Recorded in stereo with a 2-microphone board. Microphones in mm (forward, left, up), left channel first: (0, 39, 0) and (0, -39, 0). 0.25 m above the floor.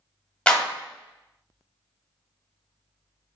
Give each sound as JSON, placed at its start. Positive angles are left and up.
{"t": 0.5, "sound": "a clap", "side_deg": 15, "distance_m": 1.0}